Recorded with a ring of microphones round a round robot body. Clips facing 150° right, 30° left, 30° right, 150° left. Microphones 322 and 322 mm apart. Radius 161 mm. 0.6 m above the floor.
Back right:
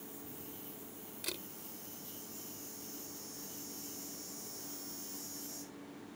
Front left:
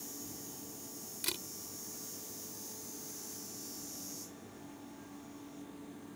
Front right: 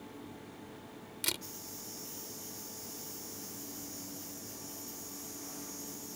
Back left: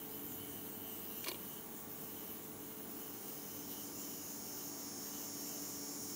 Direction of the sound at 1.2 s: 45° right.